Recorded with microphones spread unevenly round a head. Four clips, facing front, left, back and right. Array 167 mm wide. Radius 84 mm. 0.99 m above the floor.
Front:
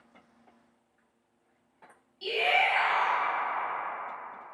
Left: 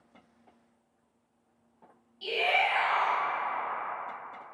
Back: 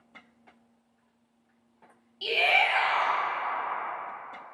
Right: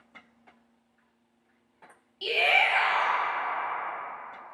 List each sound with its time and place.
2.2 s a shout: 120° right, 0.8 m